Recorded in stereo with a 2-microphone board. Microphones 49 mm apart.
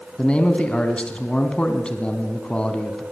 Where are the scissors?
No scissors in this recording.